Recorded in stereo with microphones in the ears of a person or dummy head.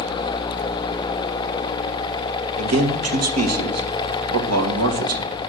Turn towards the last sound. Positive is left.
turn(degrees=-80)